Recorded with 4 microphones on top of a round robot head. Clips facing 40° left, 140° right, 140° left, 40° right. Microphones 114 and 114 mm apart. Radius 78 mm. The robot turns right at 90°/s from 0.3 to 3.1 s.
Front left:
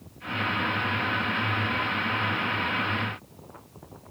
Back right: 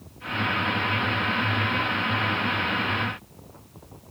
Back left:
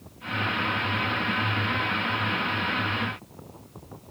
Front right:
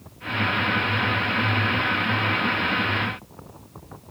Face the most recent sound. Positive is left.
No sound to turn to.